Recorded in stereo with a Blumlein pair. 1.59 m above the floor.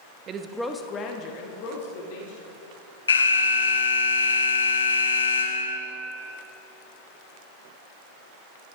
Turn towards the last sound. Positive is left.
turn(degrees=70)